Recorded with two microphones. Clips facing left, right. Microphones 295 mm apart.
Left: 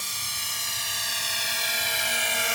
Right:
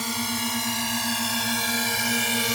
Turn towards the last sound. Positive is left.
turn(degrees=-50)  # may be behind; listen again after turning